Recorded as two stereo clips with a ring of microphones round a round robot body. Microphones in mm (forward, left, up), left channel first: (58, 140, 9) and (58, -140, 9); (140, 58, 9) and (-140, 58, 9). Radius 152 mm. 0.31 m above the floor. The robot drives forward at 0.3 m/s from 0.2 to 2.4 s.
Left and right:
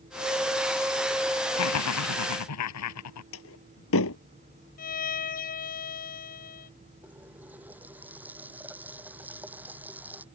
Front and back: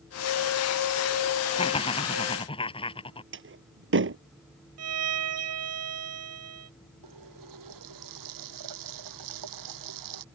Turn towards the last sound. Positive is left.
turn(degrees=-175)